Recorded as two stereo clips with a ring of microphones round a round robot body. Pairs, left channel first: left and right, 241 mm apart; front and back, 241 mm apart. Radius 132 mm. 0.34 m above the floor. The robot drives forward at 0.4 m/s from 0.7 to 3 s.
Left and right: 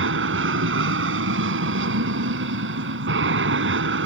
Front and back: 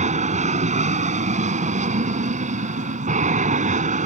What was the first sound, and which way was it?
An aircraft, 120° right.